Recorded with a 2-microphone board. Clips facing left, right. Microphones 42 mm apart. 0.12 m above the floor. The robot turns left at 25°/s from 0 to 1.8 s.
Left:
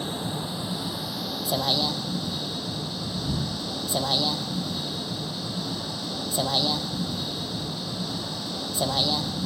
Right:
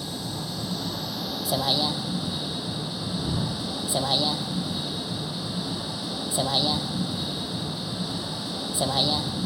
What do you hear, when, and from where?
0.0 s a vehicle: 35° left; by 9.5 s 10° right